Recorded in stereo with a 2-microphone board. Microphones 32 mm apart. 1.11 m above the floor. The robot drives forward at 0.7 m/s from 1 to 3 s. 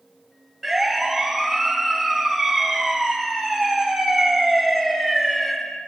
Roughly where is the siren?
Centre.